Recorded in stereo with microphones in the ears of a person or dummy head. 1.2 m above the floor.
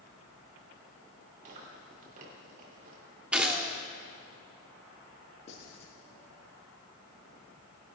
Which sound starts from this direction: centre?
A gunshot, at 3.3 s.